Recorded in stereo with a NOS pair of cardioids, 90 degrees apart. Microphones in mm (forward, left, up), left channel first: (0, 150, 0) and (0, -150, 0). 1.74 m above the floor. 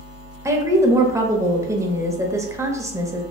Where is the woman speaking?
10° right, 0.6 m.